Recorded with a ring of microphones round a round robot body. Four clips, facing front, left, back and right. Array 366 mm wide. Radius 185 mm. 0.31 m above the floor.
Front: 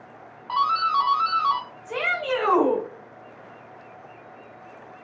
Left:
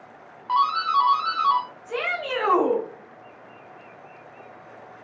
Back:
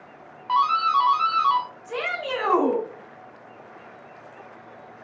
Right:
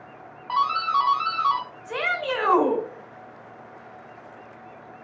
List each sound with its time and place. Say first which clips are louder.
0.5 s a doorbell: left 2 dB, back 2 dB; 135° left, 1.3 m
1.9 s a shout: right 1 dB, front 2 dB; 80° right, 1.3 m